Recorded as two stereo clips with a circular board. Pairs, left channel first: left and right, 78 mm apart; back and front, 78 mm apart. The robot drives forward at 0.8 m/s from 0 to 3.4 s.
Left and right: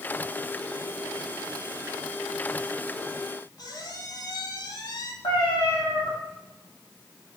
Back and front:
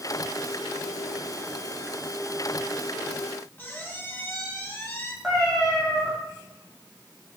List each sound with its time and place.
3.6 s a squeak: 120° left, 1.2 m
5.2 s a cat meowing: 95° left, 3.5 m